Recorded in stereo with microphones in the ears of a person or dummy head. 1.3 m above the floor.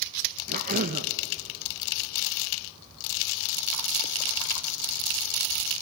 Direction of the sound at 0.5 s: 45° right (ahead or behind).